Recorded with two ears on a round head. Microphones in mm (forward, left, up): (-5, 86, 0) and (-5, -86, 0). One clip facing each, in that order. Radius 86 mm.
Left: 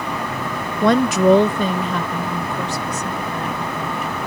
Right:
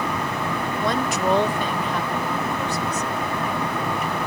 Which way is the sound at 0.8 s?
45° left (ahead or behind).